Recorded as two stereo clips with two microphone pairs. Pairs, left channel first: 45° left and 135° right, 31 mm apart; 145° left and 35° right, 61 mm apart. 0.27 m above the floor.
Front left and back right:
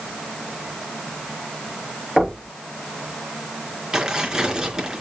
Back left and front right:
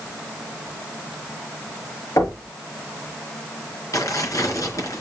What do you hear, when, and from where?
2.2 s knocking: 150° left, 5.5 m
3.9 s tearing paper: 155° left, 4.5 m